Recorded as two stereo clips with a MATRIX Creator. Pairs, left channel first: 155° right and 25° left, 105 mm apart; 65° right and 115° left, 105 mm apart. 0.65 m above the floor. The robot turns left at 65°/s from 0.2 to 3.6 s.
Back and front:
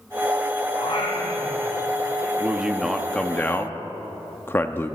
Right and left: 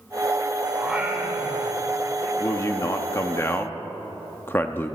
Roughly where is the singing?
Behind right.